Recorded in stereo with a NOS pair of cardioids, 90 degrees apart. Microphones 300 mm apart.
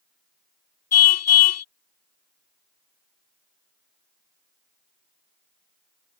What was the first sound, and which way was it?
A car horn, 60° left.